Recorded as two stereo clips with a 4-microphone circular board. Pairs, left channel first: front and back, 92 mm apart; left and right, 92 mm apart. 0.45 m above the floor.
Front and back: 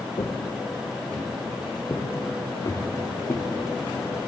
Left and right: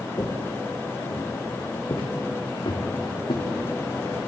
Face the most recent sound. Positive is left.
turn(degrees=55)